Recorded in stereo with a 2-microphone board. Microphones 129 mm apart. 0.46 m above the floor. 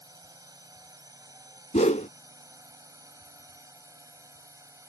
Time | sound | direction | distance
0.0 | a drone | 30° right (ahead or behind) | ?
1.7 | a whoosh | 70° left (ahead or behind) | ?